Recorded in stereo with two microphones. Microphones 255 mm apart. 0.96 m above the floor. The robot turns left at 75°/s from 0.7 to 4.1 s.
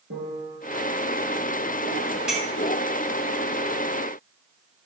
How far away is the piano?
About 3.5 m.